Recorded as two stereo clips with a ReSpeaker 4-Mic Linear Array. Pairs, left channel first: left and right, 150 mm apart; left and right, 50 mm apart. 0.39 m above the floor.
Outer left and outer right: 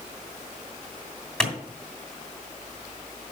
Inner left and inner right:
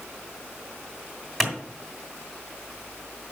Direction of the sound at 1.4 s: 5° left (ahead or behind).